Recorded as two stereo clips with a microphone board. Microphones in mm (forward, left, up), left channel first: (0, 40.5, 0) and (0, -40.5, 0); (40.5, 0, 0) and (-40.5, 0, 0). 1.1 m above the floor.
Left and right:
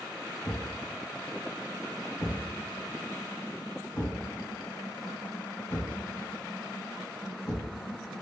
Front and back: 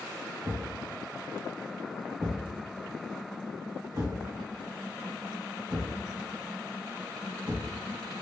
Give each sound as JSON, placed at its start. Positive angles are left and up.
{"t": 0.4, "sound": "a thud", "azimuth_deg": 165, "distance_m": 1.5}